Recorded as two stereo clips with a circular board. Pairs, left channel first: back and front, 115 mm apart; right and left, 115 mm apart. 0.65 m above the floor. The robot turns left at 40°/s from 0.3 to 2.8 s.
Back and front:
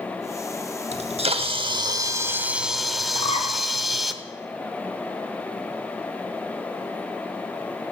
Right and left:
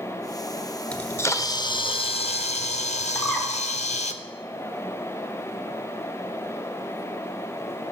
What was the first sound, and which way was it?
A camera shutter, 10° right.